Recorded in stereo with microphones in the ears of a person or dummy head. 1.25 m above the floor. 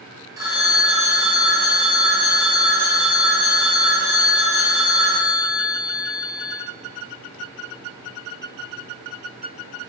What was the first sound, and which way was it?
A phone ringing, 15° right (ahead or behind).